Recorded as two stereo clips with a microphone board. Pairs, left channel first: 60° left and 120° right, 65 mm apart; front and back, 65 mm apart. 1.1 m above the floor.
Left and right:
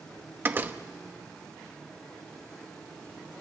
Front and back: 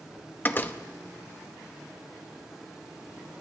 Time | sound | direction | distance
0.4 | a door slam | 60° right | 0.8 m